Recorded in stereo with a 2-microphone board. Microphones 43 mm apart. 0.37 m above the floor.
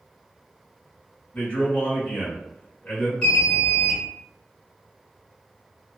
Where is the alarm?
20° left (ahead or behind), 1.6 m.